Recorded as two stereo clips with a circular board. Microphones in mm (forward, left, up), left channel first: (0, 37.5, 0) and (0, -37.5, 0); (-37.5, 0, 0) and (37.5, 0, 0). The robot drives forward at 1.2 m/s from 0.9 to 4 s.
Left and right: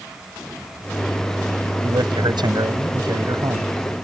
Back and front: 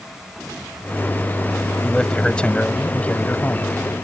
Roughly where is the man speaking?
Right.